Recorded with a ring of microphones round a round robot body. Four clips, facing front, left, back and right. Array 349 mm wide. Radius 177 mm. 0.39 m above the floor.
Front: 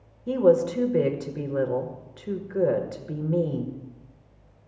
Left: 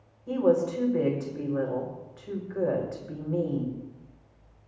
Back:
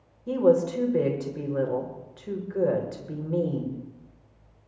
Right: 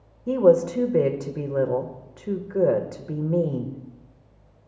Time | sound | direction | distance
0.3 | a woman speaking | 75° right | 1.6 m